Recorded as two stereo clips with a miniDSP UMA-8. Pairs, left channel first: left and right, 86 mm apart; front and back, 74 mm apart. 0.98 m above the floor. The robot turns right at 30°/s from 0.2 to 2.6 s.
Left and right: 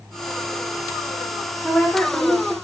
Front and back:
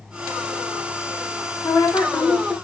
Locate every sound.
1.6 s a woman speaking: straight ahead, 0.9 m; by 2.5 s 30° left, 0.9 m